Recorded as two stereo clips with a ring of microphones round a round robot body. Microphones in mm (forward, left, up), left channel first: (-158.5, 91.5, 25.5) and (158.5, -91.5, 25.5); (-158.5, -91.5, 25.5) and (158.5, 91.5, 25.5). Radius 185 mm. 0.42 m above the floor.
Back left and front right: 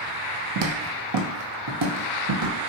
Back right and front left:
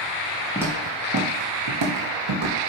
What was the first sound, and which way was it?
Footsteps, 55° right.